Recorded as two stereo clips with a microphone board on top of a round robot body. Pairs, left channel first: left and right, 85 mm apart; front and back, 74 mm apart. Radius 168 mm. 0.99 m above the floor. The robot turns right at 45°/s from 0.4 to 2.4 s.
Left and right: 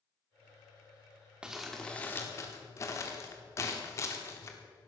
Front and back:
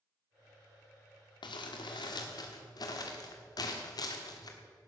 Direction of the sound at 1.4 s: 10° right.